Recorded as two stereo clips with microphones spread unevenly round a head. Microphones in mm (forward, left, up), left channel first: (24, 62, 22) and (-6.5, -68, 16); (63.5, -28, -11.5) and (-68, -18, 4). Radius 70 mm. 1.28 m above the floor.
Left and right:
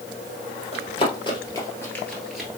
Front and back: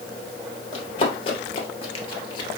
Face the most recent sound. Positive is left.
turn(degrees=-25)